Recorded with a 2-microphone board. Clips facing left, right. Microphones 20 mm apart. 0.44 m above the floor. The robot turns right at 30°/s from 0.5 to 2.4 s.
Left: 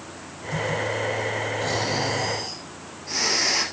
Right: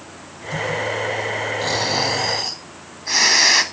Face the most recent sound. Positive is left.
turn(degrees=-60)  # may be behind; listen again after turning